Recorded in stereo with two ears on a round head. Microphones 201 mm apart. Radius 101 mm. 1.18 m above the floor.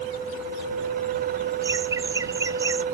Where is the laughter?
15° right (ahead or behind).